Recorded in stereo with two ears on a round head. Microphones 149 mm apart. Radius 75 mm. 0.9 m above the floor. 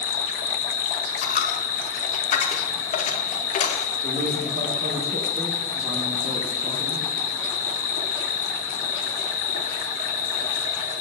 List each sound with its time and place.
0.0 s an insect: 55° left (ahead or behind), 0.7 m
1.2 s a dropped coin: 45° left (ahead or behind), 0.6 m
4.0 s a man speaking: 40° right (ahead or behind), 1.0 m